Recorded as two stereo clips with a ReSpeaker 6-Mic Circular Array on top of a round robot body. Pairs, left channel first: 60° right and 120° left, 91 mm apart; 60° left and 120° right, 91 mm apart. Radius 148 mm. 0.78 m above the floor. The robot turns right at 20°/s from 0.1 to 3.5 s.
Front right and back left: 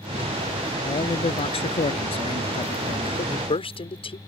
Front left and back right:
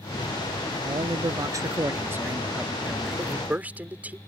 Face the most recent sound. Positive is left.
turn(degrees=-45)